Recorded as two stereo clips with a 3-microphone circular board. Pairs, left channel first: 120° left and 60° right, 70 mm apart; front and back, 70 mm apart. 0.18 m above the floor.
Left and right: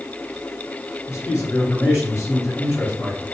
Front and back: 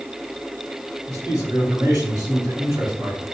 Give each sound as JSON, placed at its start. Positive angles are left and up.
{"t": 1.1, "sound": "a man speaking", "azimuth_deg": 155, "distance_m": 2.0}